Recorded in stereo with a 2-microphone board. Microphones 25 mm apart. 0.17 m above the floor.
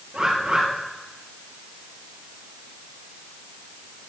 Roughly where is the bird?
Right.